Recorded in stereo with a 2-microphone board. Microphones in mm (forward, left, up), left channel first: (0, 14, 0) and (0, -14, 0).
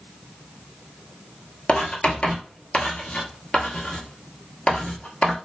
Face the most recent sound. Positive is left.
turn(degrees=50)  # may be behind; listen again after turning